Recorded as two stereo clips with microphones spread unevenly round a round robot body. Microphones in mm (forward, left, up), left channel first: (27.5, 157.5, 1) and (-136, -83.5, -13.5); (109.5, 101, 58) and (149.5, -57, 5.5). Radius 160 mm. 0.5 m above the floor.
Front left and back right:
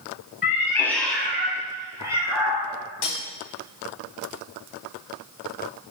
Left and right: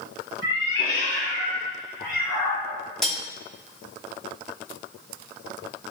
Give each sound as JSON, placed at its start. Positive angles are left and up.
{"t": 0.4, "sound": "a cat meowing", "azimuth_deg": 125, "distance_m": 0.6}
{"t": 3.0, "sound": "cutlery clinking", "azimuth_deg": 5, "distance_m": 1.0}